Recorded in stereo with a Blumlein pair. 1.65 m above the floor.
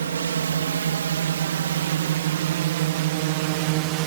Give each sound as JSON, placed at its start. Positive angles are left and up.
{"t": 0.0, "sound": "a drone", "azimuth_deg": -65}